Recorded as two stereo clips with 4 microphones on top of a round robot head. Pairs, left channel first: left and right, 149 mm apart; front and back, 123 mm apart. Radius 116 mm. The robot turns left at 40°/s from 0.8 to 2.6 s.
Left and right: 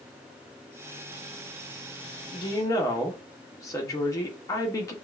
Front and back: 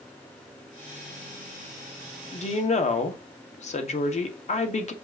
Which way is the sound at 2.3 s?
30° left.